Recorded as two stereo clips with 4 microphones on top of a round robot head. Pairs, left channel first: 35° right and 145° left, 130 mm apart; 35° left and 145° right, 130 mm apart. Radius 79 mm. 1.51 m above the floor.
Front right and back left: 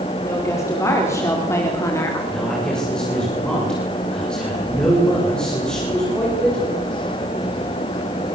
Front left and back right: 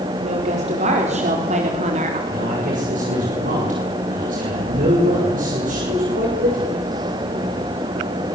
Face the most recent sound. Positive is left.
turn(degrees=-120)